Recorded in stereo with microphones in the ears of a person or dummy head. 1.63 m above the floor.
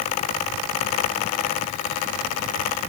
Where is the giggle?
No giggle in this recording.